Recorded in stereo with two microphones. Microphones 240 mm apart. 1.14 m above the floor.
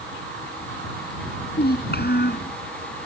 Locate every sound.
1.5 s a child speaking: 40° left (ahead or behind)